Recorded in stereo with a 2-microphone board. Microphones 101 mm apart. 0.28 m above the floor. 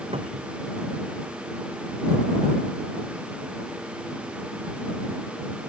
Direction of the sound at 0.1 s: 80° right.